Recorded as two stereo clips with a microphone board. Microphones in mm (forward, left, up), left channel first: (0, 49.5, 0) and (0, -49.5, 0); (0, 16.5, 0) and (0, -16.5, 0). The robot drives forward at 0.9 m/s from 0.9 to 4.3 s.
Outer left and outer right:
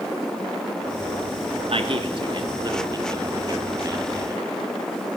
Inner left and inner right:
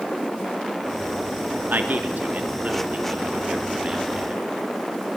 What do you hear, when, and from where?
1.7 s a man speaking: 65° right (ahead or behind), 2 m; by 4.5 s 30° right (ahead or behind), 3.5 m